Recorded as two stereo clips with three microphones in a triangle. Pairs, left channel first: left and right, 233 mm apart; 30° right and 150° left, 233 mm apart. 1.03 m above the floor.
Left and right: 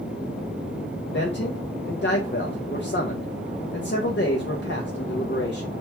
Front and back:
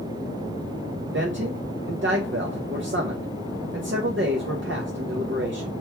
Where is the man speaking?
120° left, 0.6 m.